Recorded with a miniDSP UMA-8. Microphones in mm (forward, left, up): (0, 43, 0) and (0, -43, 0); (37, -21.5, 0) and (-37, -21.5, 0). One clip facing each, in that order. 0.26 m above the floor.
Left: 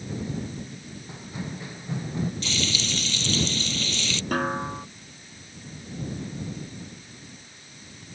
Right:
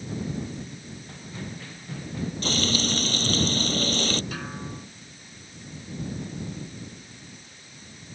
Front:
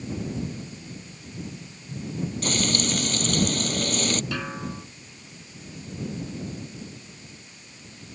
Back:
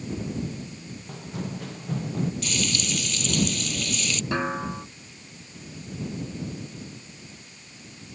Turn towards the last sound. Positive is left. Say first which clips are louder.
# left 9 dB, back 5 dB
turn(degrees=125)